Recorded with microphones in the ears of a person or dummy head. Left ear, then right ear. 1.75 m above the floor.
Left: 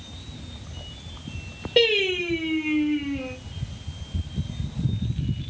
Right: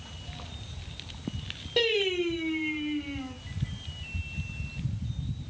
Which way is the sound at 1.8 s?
20° left (ahead or behind).